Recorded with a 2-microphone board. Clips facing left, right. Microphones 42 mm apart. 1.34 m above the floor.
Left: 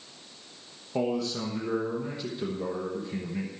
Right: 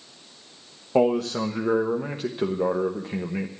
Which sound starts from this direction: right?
A man speaking, at 0.9 s.